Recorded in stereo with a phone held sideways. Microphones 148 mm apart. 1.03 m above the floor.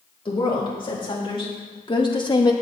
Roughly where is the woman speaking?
Left.